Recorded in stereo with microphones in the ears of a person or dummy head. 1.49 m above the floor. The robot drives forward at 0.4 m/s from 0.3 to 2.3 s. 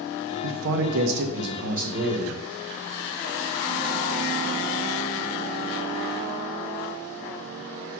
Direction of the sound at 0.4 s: 65° right (ahead or behind).